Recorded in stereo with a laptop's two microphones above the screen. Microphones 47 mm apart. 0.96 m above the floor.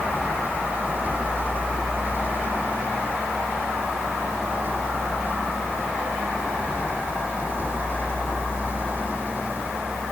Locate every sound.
0.0 s a vehicle: 40° right (ahead or behind)